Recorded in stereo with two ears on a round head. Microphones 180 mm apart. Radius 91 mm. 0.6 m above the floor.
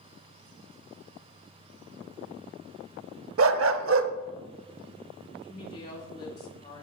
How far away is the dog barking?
About 0.6 m.